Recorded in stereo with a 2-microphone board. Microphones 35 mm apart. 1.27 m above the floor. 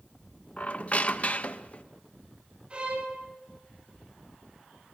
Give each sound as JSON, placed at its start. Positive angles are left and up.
{"t": 0.6, "sound": "a squeak", "side_deg": 40, "distance_m": 0.7}
{"t": 2.7, "sound": "a violin", "side_deg": -30, "distance_m": 5.0}